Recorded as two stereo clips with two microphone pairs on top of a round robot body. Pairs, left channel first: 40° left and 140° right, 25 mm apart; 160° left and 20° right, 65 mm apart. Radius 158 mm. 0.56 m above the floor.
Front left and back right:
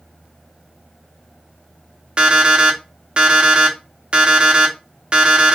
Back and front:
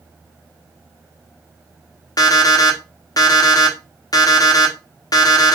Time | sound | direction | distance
2.2 | an alarm clock | 170° left | 1.2 m